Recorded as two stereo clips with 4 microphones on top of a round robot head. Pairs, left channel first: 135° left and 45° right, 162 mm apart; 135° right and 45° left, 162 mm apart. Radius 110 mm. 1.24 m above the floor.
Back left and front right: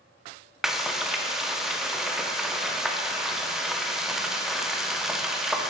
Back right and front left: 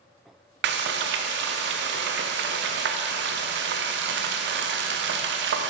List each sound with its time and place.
0.6 s frying: 40° left, 0.6 m